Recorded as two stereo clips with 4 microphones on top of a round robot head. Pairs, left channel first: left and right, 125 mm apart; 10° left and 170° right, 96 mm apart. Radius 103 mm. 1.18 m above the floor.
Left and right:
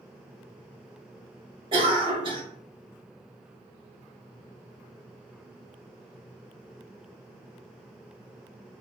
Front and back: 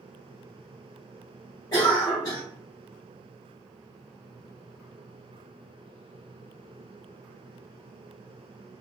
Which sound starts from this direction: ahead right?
A cough, at 1.7 s.